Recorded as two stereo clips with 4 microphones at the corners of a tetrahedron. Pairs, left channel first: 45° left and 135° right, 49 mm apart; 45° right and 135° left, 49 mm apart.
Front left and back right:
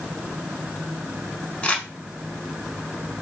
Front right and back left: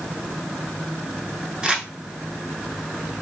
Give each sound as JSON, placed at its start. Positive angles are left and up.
{"t": 1.6, "sound": "crumpling", "azimuth_deg": 80, "distance_m": 0.6}